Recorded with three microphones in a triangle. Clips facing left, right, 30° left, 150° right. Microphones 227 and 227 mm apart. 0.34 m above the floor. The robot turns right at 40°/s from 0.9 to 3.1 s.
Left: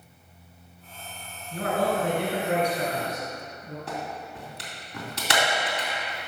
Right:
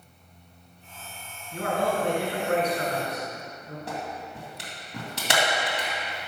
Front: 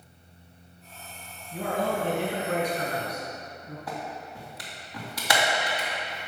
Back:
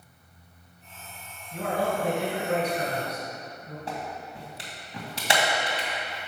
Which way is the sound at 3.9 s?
90° right.